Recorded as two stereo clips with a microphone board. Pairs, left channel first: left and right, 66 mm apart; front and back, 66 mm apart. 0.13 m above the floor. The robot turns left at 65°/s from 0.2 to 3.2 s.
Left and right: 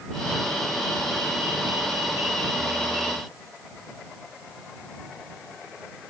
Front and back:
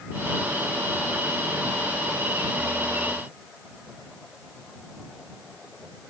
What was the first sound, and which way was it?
Only background noise.